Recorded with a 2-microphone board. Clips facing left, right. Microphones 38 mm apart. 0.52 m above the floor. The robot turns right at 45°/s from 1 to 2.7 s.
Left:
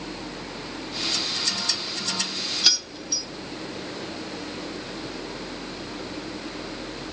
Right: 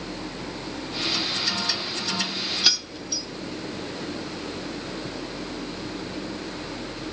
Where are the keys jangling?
5° right (ahead or behind), 0.6 m; by 3.3 s 10° right (ahead or behind), 0.6 m.